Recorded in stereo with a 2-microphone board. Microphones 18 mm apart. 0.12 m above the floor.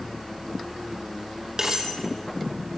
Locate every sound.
1.6 s cutlery clinking: 40° right (ahead or behind), 2 m